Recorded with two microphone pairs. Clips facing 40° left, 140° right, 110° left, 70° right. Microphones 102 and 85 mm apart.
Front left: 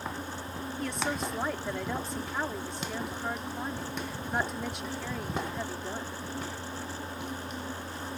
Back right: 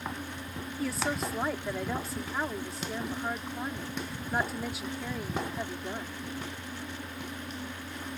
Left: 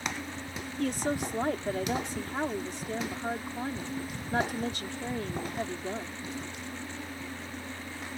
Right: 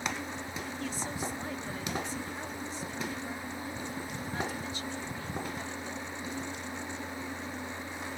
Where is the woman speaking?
135° left.